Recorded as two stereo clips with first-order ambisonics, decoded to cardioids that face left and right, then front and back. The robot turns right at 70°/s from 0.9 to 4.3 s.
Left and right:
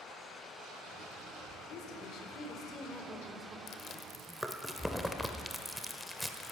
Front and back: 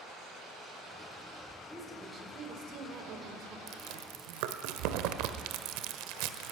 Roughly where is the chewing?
Behind left.